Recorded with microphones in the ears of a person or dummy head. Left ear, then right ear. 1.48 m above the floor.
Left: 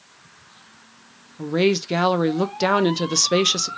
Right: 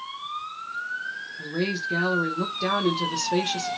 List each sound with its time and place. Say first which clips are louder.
1.4 s a woman speaking: left 9 dB; 80° left, 0.5 m